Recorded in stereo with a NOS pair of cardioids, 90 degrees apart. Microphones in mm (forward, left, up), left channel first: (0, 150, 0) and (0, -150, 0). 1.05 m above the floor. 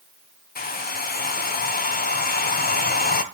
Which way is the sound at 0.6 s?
30° left.